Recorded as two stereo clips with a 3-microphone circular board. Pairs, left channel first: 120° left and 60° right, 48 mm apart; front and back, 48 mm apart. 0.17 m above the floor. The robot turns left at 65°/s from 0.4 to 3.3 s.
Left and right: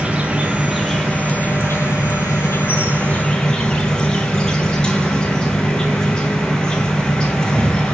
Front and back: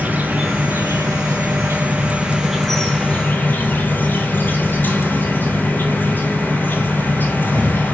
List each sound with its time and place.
0.0 s an insect: 125° right, 1.2 m; by 7.9 s 45° left, 1.2 m